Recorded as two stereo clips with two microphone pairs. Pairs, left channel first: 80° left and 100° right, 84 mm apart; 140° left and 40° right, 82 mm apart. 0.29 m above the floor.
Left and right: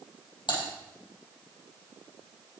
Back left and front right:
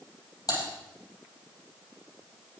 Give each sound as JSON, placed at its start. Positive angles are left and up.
{"t": 0.5, "sound": "typing on a keyboard", "azimuth_deg": 100, "distance_m": 4.0}